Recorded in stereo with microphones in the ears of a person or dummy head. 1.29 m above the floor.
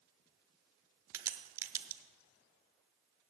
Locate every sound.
1.1 s a crack: 10° right (ahead or behind), 0.6 m